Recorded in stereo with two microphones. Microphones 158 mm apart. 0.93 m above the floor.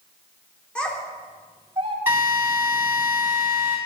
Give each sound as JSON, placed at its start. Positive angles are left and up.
{"t": 0.8, "sound": "a child speaking", "side_deg": 5, "distance_m": 2.0}
{"t": 2.1, "sound": "a drill", "side_deg": -15, "distance_m": 3.0}